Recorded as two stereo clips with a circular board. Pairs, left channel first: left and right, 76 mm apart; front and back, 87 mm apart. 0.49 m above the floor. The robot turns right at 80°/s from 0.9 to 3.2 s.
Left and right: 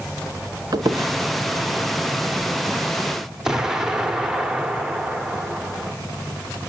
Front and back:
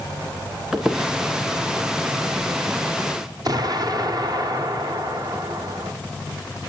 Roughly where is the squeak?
Right.